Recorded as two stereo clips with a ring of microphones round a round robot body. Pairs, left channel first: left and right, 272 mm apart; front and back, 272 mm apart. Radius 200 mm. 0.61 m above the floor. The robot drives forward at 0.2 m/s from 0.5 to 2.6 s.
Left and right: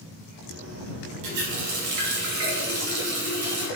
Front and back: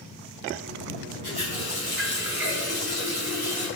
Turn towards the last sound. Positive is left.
turn(degrees=-120)